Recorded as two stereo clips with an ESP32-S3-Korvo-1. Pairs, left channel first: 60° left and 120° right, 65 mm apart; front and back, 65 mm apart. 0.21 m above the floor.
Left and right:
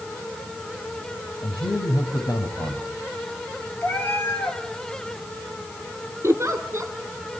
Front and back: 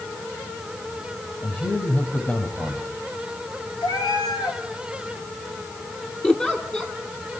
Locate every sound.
1.4 s a man speaking: 60° left, 6 m
3.8 s a cat meowing: straight ahead, 5 m
6.2 s a giggle: 80° right, 2.5 m